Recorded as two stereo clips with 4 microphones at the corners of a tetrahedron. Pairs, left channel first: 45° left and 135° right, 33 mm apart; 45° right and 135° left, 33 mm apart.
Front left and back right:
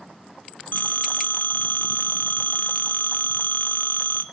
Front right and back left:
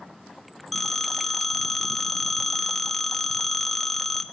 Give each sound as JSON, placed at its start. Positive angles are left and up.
{"t": 0.7, "sound": "a phone ringing", "azimuth_deg": 35, "distance_m": 0.8}